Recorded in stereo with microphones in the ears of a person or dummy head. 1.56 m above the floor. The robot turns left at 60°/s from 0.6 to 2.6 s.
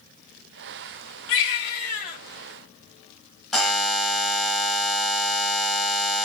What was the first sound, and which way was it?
A baby crying, 90° left.